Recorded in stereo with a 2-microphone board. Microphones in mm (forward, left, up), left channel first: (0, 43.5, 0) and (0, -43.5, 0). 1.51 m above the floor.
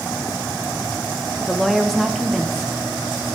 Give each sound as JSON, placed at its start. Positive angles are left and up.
{"t": 1.4, "sound": "a woman speaking", "side_deg": 0, "distance_m": 0.7}